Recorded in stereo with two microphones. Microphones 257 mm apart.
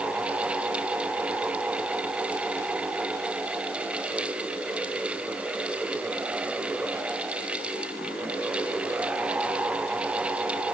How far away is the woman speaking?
No woman speaking in this recording.